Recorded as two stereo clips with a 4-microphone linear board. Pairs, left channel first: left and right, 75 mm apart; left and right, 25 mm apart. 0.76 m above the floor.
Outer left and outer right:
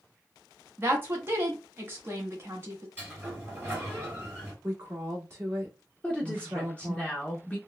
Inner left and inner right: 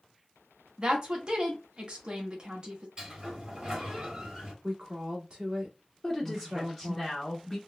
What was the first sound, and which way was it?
A woman speaking, 30° right (ahead or behind).